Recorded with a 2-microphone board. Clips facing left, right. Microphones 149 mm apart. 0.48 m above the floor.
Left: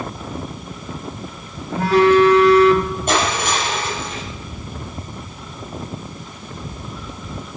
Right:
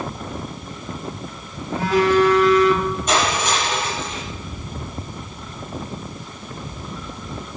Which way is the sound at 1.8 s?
55° left (ahead or behind).